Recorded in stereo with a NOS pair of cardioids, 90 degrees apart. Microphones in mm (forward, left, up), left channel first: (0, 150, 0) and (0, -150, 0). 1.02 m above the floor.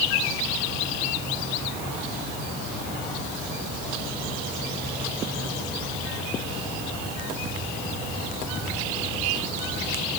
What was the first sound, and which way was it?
Only background noise.